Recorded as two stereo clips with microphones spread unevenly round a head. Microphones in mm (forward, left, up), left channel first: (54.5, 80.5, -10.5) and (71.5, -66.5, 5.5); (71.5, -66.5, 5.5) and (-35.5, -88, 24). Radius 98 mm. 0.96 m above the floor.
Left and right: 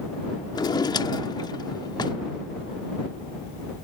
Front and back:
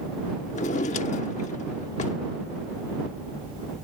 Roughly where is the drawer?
Ahead left.